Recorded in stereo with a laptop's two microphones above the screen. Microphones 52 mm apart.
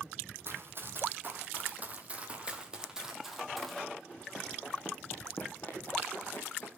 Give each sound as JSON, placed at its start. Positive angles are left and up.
{"t": 0.5, "sound": "running footsteps", "side_deg": -55, "distance_m": 2.5}